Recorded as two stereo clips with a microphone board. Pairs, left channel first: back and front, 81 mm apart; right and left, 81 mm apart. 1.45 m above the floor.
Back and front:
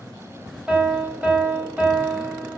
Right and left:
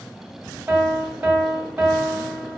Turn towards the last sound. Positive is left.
turn(degrees=60)